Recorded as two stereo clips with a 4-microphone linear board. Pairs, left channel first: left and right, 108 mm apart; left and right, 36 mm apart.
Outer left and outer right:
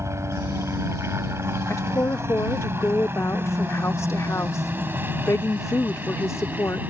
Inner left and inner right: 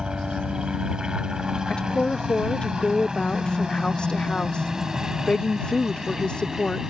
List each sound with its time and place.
0.0 s a helicopter: 25° right (ahead or behind); by 6.9 s 15° right (ahead or behind)
1.7 s a woman speaking: 25° left (ahead or behind)